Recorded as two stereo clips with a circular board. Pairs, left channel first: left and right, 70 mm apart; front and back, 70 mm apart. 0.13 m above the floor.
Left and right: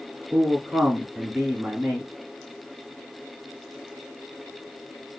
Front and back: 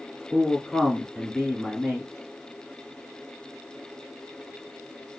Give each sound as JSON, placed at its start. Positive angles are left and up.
{"t": 0.3, "sound": "a man speaking", "azimuth_deg": -90, "distance_m": 1.7}